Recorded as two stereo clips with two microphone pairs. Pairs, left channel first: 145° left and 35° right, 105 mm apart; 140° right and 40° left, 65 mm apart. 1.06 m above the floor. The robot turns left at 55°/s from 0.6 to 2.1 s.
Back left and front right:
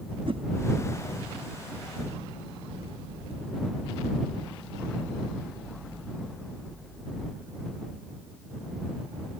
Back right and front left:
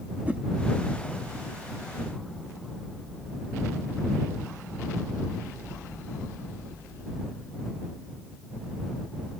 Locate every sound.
0.2 s a whoosh: 20° right